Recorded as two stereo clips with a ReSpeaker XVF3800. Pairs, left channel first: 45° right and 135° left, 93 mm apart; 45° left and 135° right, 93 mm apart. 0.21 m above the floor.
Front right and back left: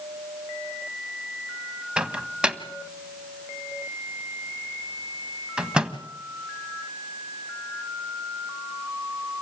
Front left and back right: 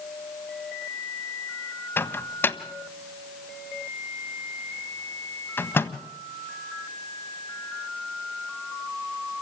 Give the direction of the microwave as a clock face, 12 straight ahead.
10 o'clock.